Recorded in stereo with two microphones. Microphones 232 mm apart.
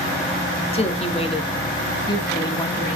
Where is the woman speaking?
25° left (ahead or behind), 1.1 m; by 3.0 s 15° left (ahead or behind), 2.5 m.